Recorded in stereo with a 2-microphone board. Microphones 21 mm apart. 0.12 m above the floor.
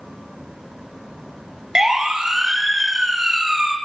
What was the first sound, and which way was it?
A siren, 30° right (ahead or behind).